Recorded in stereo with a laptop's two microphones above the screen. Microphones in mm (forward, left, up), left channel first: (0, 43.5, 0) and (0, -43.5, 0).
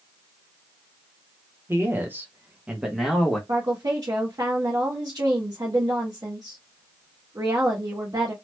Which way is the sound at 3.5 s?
55° right (ahead or behind).